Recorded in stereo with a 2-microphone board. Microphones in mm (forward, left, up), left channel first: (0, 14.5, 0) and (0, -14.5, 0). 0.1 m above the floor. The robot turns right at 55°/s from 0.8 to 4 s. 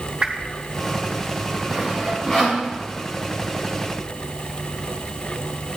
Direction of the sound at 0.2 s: 40° right (ahead or behind).